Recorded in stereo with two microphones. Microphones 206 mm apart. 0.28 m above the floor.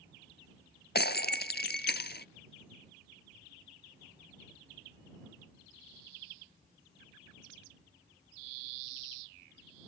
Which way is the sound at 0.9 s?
55° left (ahead or behind).